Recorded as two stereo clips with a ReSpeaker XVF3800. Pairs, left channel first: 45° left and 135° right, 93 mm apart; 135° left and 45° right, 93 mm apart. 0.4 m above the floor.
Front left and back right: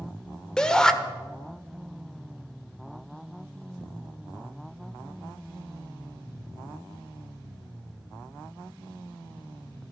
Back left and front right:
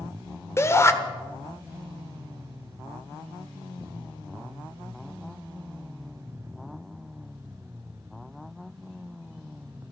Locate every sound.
0.6 s a shout: 120° left, 1.2 m